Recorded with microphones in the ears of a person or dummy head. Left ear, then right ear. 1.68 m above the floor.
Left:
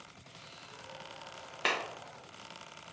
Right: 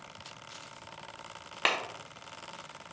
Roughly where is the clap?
Centre.